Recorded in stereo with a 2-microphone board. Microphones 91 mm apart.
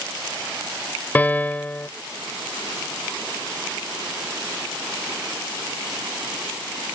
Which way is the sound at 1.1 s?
20° left (ahead or behind).